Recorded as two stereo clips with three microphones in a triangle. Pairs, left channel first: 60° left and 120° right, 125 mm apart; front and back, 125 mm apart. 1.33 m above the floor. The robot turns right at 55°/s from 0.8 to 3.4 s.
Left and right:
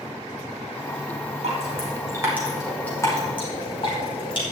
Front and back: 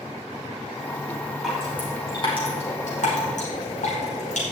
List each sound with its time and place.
1.4 s dripping: 95° right, 5 m; by 4.4 s 15° left, 5 m